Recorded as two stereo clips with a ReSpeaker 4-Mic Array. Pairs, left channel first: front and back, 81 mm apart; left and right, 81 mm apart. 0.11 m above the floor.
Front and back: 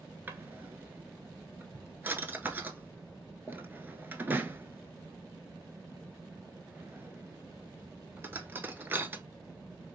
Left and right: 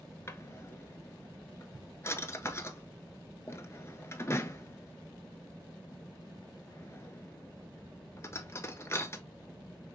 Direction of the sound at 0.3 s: 125° left.